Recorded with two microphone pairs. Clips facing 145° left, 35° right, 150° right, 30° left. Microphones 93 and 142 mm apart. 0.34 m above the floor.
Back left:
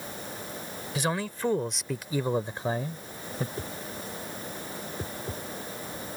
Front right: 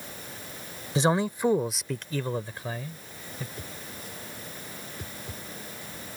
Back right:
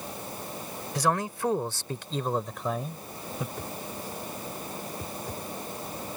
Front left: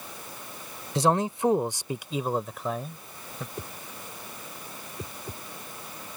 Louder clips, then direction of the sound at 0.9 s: Front right 6 dB, front left 4 dB; 5° right.